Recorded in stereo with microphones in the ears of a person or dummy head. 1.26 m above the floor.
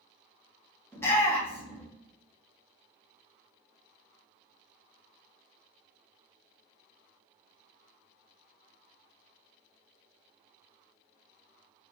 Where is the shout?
10° left (ahead or behind), 1.6 m.